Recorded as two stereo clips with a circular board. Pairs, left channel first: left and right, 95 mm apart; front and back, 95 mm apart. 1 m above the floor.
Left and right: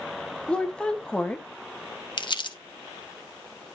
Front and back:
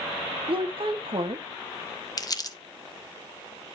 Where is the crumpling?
50° left, 0.9 m.